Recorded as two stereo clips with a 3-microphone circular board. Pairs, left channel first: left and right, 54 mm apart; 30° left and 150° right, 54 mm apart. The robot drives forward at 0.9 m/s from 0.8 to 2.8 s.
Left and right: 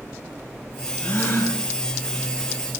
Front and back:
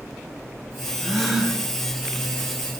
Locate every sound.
1.0 s a gasp: 120° left, 2.5 m; by 1.6 s 130° left, 3 m